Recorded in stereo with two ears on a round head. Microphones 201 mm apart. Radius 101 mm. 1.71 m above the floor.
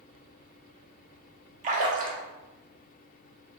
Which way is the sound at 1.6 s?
35° right (ahead or behind).